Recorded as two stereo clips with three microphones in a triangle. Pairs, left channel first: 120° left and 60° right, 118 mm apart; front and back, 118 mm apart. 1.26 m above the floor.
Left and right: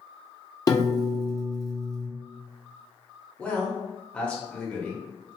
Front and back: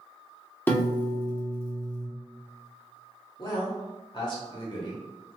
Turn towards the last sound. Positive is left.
turn(degrees=40)